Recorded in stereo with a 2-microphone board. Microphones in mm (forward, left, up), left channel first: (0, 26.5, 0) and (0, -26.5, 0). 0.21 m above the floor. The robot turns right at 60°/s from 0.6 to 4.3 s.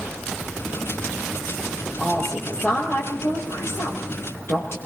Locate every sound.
2.0 s a woman speaking: 10° right, 7 m; by 4.8 s 125° left, 7 m